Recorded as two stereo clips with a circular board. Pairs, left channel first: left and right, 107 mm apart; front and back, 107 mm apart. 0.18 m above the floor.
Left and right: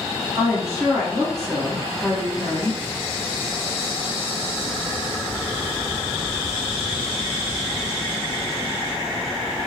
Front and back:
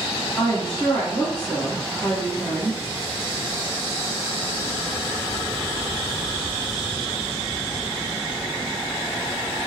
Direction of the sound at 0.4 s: 40° right.